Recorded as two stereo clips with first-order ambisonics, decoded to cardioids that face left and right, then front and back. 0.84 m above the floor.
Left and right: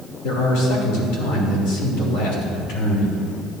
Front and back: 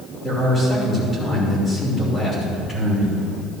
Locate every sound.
0.2 s a man speaking: 80° left, 3 m